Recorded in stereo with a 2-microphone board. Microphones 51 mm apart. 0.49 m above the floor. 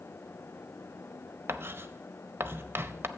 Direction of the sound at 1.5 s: 50° right (ahead or behind).